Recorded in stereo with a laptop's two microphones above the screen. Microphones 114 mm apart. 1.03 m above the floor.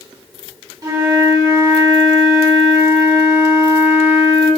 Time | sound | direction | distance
0.8 | a flute | 40° right (ahead or behind) | 1.8 m